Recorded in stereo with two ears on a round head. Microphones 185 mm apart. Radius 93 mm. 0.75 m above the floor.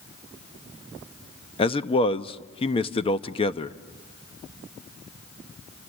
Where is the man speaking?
25° left (ahead or behind), 0.8 m.